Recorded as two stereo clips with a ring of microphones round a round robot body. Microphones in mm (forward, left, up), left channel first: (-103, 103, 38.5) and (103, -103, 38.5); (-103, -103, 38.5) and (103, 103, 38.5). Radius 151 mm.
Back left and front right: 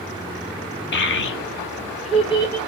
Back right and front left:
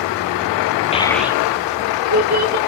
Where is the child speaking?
165° left, 0.8 m; by 2.6 s 60° left, 1.5 m.